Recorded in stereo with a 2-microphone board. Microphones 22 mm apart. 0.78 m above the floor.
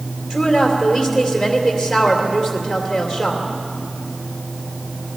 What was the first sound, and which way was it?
A woman speaking, 5° right (ahead or behind).